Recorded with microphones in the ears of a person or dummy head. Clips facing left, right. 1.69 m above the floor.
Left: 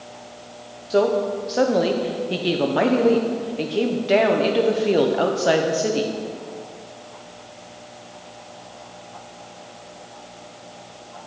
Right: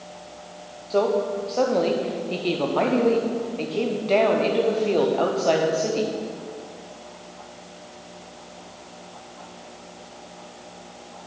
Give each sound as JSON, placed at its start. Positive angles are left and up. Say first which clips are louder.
{"t": 0.9, "sound": "a woman speaking", "louder": "left 2 dB", "side_deg": 15, "distance_m": 0.6}